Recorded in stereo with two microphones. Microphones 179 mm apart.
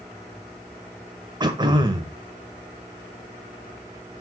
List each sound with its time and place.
1.4 s throat clearing: 25° right (ahead or behind), 1.4 m